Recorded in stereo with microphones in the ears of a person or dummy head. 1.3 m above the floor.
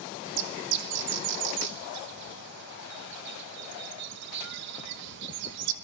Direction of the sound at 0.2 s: 70° right (ahead or behind).